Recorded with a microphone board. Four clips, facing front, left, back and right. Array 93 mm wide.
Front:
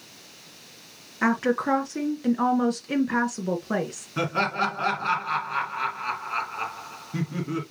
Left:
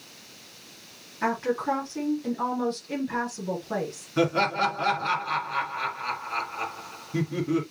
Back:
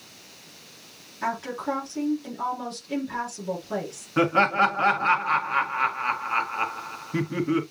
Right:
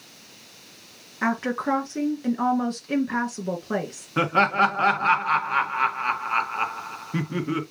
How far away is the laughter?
About 1.6 m.